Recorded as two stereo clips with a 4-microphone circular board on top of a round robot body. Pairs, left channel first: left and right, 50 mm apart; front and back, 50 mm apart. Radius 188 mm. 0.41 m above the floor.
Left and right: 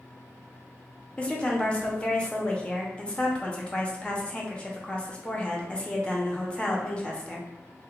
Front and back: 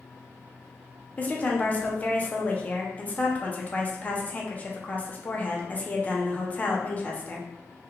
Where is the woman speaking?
35° left, 0.8 m.